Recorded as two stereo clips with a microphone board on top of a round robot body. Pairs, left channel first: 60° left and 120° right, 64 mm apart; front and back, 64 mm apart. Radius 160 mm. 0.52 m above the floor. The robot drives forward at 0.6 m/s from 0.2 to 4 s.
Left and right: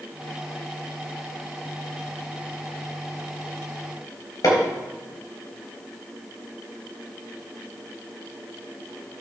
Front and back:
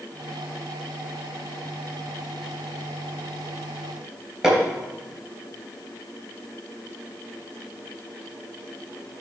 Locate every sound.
4.4 s hammering: 100° left, 4 m